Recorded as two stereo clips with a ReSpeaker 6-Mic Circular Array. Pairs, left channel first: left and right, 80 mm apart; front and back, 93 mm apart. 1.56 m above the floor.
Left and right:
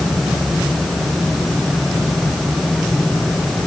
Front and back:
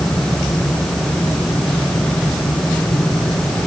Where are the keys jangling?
No keys jangling in this recording.